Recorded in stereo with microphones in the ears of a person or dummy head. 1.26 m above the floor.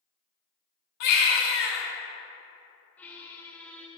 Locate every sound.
1.0 s a baby crying: 50° left (ahead or behind), 1.1 m
3.0 s a squeak: 5° left (ahead or behind), 0.6 m